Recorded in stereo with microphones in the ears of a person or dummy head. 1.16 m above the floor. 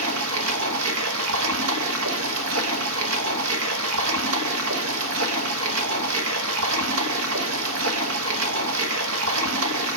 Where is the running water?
75° right (ahead or behind), 1.1 m.